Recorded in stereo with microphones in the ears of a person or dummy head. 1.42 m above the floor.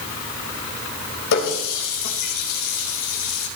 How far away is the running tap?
About 4.5 m.